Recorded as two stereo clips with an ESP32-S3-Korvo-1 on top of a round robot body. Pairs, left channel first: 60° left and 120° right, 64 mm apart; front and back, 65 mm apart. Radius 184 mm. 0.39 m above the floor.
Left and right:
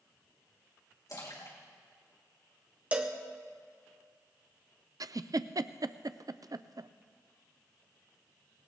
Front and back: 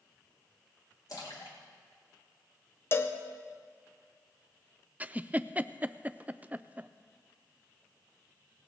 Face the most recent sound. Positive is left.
turn(degrees=-115)